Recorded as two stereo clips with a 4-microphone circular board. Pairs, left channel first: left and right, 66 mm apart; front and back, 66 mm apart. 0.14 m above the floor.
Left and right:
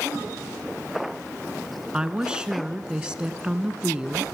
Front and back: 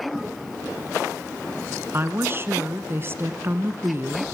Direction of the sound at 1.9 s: 160° right.